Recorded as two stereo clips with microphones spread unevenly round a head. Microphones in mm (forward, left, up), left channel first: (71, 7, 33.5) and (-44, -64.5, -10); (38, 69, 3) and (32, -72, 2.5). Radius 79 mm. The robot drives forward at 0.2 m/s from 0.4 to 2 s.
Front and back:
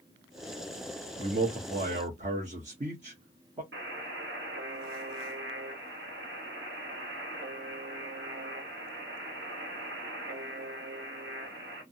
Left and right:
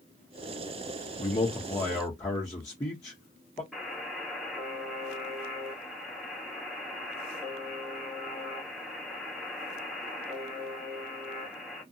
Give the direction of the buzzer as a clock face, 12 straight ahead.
6 o'clock.